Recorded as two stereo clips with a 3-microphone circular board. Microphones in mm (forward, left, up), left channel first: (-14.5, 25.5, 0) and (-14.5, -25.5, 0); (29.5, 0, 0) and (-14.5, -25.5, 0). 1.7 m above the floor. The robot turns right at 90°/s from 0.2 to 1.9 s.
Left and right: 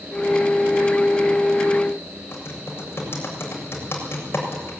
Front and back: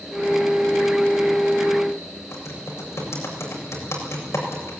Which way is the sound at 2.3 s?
50° left.